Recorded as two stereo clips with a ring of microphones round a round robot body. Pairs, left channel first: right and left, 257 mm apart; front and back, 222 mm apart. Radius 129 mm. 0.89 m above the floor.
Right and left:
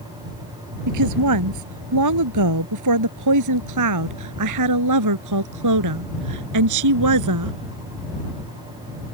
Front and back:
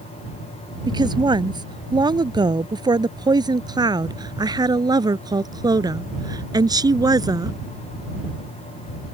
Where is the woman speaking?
110° left; by 7.5 s 105° left.